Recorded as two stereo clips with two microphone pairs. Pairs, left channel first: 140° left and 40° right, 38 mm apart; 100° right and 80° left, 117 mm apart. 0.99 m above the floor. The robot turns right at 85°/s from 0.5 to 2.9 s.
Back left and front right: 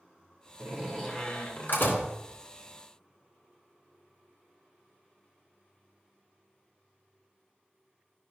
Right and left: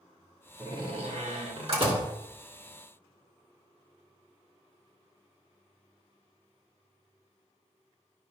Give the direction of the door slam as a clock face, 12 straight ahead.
11 o'clock.